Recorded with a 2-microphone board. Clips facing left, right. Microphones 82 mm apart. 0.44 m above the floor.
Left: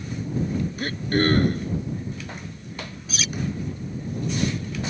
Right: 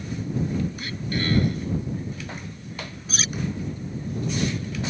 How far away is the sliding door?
I don't hear a sliding door.